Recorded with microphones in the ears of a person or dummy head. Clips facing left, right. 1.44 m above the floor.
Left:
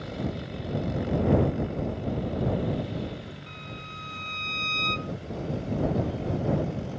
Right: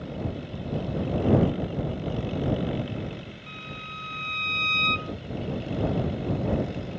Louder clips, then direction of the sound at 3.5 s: Even; 5° left (ahead or behind).